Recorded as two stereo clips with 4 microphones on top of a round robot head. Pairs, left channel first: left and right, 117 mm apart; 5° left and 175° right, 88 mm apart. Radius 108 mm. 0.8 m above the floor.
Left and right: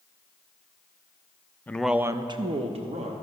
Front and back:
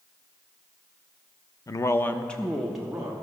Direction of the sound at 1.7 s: 25° left.